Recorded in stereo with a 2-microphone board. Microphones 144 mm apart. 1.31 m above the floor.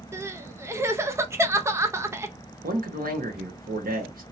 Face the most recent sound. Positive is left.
turn(degrees=-75)  # may be behind; listen again after turning